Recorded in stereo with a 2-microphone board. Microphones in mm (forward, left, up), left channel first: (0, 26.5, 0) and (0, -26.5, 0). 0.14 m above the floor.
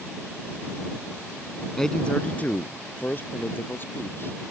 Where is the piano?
No piano in this recording.